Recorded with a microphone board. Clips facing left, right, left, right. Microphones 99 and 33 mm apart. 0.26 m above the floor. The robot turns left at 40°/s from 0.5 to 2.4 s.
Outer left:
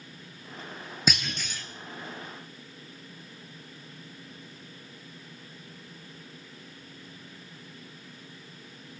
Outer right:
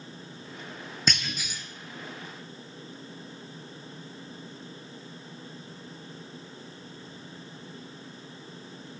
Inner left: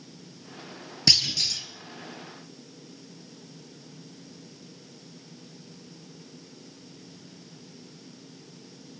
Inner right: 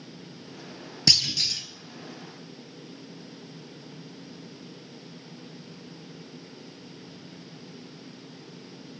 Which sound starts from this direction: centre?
A clunk, at 1.1 s.